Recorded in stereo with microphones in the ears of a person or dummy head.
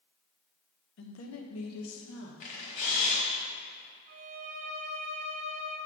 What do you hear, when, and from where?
1.0 s a woman speaking: 65° left (ahead or behind), 0.7 m; by 2.3 s 70° left (ahead or behind), 1.2 m
2.4 s a camera shutter: 40° left (ahead or behind), 1.3 m
4.1 s a violin: 40° right (ahead or behind), 0.7 m